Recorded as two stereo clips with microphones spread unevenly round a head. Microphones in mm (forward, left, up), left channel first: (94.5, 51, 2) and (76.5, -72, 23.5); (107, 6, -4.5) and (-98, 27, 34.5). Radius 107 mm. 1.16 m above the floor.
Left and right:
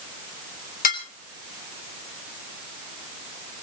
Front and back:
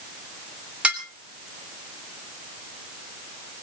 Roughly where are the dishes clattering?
Left.